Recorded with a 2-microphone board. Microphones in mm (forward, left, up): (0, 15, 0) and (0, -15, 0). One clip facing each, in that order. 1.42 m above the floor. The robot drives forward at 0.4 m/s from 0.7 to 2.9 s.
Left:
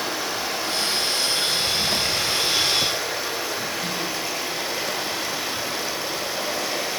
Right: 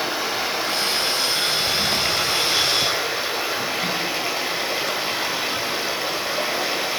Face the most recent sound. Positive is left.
turn(degrees=-25)  # may be behind; listen again after turning